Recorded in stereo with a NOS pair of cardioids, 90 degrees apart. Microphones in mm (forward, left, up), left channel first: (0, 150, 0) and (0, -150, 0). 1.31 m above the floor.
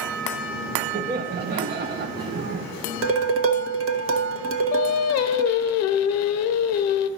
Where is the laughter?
30° right, 0.6 m.